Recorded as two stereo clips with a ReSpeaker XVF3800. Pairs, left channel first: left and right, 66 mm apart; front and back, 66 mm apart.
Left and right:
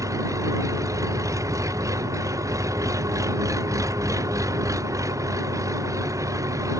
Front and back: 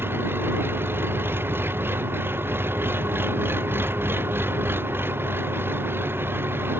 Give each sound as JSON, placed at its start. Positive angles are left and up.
{"t": 0.0, "sound": "an engine running", "azimuth_deg": -125}